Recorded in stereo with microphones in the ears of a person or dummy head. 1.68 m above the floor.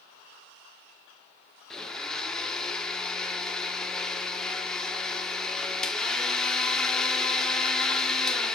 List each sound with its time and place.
1.7 s a blender: 10° left (ahead or behind), 1.0 m